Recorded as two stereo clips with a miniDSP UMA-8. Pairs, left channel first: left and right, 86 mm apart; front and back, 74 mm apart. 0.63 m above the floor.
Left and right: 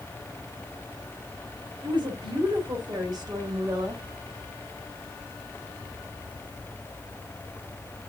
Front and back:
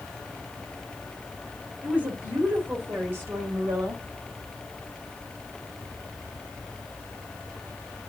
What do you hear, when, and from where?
1.8 s a woman speaking: 110° right, 2.5 m; by 4.0 s 135° right, 3 m